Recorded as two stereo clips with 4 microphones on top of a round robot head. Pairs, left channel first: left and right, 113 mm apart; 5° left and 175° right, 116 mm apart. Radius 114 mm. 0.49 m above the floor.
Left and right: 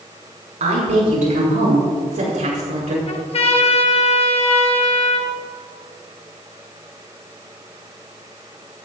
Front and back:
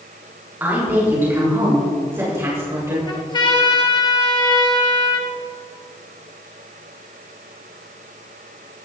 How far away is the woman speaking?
About 5.5 m.